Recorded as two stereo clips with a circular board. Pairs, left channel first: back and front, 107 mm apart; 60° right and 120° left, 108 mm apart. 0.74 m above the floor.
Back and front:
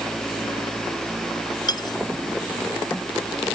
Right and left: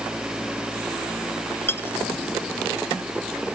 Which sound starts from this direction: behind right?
Cutlery clinking, at 1.7 s.